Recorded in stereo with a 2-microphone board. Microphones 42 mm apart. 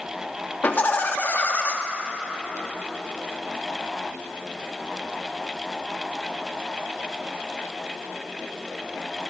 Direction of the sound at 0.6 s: 40° left (ahead or behind).